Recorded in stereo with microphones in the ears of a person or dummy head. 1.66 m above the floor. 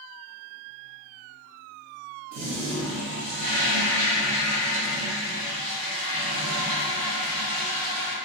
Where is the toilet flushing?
55° right (ahead or behind), 1.1 m.